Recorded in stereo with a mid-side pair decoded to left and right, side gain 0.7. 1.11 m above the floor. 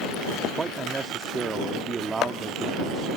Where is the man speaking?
20° right.